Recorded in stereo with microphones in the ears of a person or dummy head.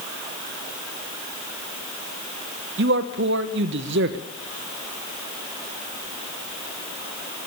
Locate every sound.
2.8 s a man speaking: 60° right (ahead or behind), 1.1 m